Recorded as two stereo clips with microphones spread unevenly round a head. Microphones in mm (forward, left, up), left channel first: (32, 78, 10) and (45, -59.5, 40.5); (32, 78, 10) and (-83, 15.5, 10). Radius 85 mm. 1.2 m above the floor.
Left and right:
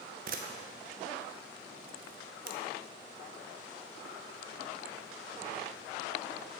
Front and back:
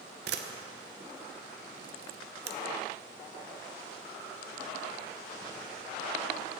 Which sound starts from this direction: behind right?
A camera shutter, at 0.3 s.